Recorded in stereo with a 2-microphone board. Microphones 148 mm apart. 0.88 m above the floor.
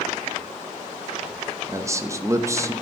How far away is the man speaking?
About 0.7 m.